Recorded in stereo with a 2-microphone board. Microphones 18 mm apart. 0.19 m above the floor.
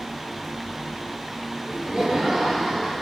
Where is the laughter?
50° right (ahead or behind), 3 m.